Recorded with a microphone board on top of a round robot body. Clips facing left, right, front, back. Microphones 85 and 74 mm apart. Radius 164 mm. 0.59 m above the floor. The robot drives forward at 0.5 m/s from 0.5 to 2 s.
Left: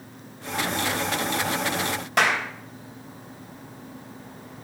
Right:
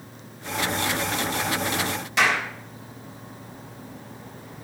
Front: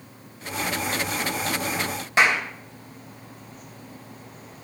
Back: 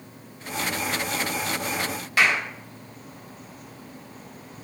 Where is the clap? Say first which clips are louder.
Even, front 2 dB; 65° left, 3.5 m.